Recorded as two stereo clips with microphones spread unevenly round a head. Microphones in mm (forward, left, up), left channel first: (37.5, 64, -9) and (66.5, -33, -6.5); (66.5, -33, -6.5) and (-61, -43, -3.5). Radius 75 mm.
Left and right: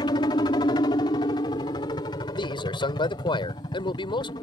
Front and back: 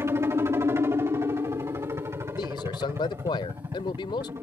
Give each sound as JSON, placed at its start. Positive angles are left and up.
{"t": 0.0, "sound": "a helicopter", "azimuth_deg": 120}
{"t": 2.4, "sound": "a man speaking", "azimuth_deg": 70}